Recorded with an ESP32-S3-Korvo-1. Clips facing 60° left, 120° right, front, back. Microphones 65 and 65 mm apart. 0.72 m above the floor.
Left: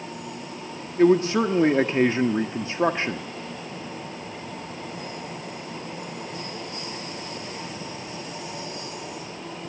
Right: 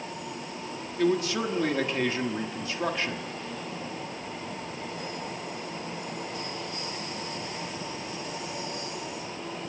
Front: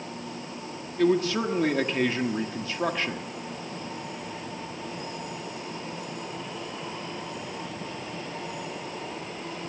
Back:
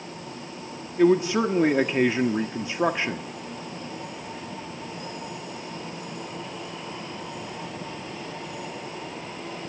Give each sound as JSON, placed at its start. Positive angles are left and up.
{"t": 1.0, "sound": "a man speaking", "azimuth_deg": 115, "distance_m": 1.4}